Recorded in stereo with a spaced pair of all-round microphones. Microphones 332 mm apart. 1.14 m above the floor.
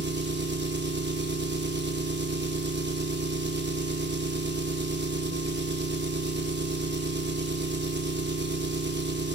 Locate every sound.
0.0 s an engine running: 35° right (ahead or behind), 0.8 m